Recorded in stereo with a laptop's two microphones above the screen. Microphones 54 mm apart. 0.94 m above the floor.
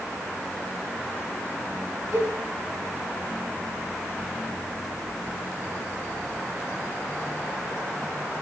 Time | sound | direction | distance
2.1 | a cowbell | 85° right | 7 m